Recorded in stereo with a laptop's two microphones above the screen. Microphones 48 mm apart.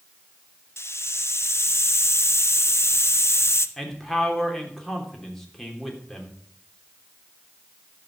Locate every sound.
0.8 s a hiss: 60° left (ahead or behind), 0.7 m
3.8 s a man speaking: 5° left (ahead or behind), 3 m